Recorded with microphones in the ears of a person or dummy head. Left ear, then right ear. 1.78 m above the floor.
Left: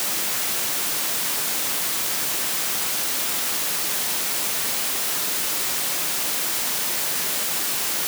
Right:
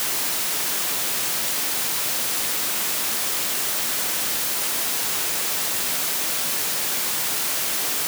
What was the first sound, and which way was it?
Only background noise.